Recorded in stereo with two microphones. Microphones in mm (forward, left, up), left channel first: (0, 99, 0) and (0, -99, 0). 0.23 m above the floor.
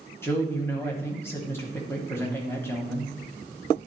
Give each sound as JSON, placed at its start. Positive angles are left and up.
{"t": 0.2, "sound": "a man speaking", "side_deg": 10, "distance_m": 1.0}